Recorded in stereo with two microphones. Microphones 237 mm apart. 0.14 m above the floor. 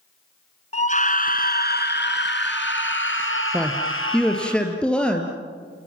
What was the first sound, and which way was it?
A scream, 30° left (ahead or behind).